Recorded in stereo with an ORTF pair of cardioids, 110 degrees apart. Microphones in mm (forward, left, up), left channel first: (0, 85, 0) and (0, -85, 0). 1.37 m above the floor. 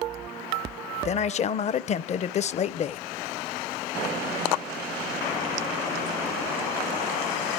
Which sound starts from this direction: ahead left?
A man speaking, at 1.1 s.